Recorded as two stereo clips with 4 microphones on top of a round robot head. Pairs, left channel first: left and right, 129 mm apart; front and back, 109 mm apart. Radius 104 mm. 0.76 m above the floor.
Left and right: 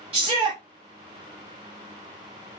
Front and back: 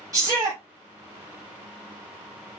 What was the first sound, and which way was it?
A shout, 125° right.